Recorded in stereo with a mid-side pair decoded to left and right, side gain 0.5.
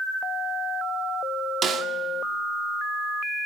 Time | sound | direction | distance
1.6 | a snare drum | 50° right | 1.9 m